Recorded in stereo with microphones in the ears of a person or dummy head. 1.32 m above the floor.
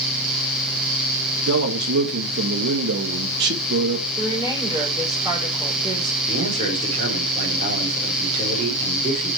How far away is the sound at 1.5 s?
About 2 m.